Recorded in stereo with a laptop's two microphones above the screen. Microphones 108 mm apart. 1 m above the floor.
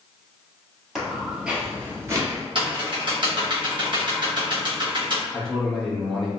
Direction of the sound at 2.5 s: 50° right (ahead or behind).